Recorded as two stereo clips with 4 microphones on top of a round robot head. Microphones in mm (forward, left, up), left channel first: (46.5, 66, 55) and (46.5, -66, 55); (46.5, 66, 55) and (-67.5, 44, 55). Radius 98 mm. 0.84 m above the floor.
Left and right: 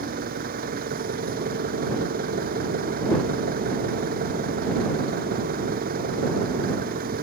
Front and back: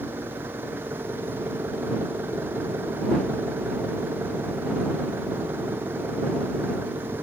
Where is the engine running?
95° right.